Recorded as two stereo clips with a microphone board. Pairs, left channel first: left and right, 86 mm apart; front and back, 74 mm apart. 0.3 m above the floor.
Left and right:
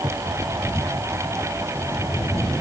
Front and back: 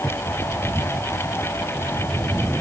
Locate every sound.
Only background noise.